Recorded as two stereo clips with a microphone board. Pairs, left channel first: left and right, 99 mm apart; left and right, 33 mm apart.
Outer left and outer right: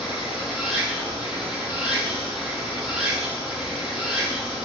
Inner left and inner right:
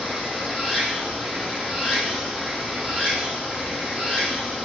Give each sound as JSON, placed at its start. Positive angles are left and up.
{"t": 0.0, "sound": "running water", "side_deg": -5, "distance_m": 3.0}